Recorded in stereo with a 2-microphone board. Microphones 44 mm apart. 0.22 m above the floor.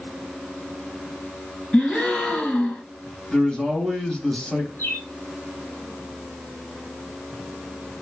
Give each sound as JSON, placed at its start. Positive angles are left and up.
{"t": 1.7, "sound": "a gasp", "side_deg": 25, "distance_m": 0.9}
{"t": 3.3, "sound": "a man speaking", "side_deg": 20, "distance_m": 0.9}
{"t": 4.8, "sound": "a bird", "side_deg": 60, "distance_m": 2.0}